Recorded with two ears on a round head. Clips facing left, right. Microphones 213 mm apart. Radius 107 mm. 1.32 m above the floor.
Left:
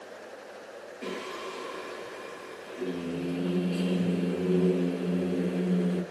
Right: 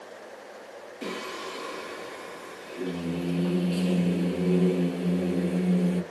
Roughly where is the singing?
Right.